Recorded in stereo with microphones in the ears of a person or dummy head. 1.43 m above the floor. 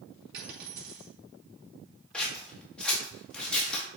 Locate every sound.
0.3 s a dropped coin: 65° right (ahead or behind), 4 m
2.1 s scissors: 5° left (ahead or behind), 1.4 m